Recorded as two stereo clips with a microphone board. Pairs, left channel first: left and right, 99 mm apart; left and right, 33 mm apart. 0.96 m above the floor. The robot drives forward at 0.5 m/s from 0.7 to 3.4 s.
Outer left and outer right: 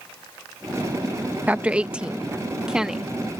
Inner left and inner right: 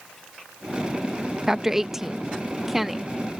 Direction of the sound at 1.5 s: 15° right (ahead or behind).